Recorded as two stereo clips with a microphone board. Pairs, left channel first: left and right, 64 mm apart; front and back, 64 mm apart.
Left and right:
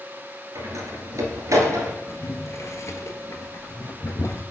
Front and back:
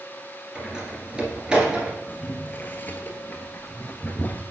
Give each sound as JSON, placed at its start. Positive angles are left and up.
{"t": 0.6, "sound": "a door slam", "azimuth_deg": -105, "distance_m": 1.9}
{"t": 2.1, "sound": "boiling", "azimuth_deg": 55, "distance_m": 1.0}